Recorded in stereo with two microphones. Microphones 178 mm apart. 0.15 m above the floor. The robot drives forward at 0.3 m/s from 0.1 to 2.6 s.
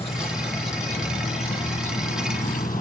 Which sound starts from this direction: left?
An insect, at 0.0 s.